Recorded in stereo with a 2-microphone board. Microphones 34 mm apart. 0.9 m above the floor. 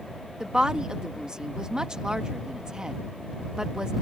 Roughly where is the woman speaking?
Right.